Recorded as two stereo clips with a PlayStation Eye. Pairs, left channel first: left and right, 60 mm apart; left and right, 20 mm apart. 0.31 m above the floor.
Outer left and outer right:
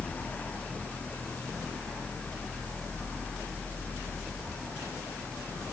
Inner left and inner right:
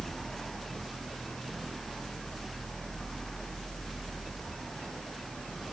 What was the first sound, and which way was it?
Only background noise.